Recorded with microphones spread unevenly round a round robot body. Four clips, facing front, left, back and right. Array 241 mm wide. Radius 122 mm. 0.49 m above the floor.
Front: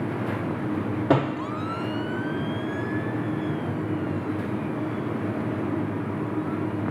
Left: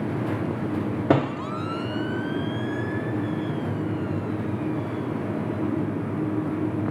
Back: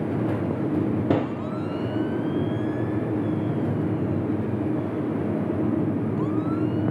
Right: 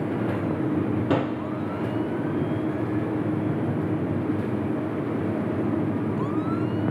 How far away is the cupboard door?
About 1.3 m.